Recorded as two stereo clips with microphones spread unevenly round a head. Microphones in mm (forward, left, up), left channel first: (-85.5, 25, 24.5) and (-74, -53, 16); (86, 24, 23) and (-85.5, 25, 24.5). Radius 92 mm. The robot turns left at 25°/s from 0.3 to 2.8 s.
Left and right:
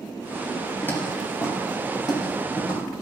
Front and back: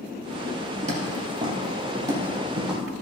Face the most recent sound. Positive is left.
turn(degrees=95)